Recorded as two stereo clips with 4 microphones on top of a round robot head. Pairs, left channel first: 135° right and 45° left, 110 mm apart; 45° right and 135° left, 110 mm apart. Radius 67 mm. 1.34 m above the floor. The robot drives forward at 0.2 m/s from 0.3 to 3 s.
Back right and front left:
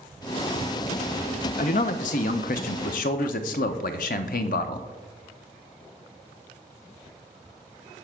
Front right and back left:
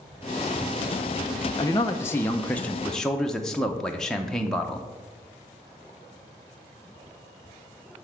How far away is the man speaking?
About 0.5 m.